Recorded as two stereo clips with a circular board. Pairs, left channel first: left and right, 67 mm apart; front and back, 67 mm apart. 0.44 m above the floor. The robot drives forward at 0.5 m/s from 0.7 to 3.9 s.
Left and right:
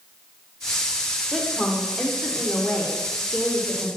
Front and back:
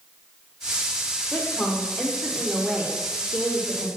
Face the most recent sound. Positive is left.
turn(degrees=175)